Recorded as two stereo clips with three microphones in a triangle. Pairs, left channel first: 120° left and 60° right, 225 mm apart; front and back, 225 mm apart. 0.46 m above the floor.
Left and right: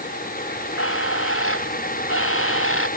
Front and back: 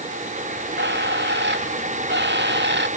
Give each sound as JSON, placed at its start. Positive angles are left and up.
{"t": 0.5, "sound": "a bird", "azimuth_deg": 140}